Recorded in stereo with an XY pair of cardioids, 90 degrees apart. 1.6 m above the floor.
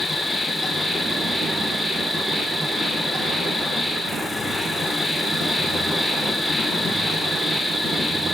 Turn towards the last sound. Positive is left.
turn(degrees=0)